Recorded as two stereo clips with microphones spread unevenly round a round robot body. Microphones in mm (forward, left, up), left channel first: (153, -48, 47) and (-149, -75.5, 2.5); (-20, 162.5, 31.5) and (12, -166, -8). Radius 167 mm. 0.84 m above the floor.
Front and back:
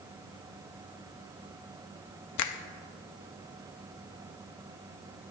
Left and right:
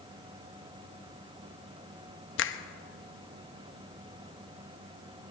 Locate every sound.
2.4 s a finger snap: 40° left, 0.8 m